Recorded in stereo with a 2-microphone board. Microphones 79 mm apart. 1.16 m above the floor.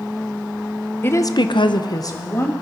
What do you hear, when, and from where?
1.0 s a woman speaking: 25° left (ahead or behind), 0.8 m; by 2.5 s 35° left (ahead or behind), 1.7 m